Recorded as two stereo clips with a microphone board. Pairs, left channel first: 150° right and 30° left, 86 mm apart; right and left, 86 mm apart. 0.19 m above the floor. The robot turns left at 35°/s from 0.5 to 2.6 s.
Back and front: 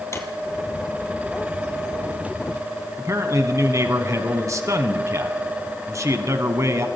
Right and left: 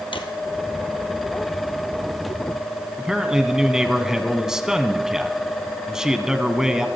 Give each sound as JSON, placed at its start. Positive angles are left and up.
{"t": 0.1, "sound": "a drawer", "azimuth_deg": -95, "distance_m": 1.3}
{"t": 3.0, "sound": "a man speaking", "azimuth_deg": 10, "distance_m": 1.3}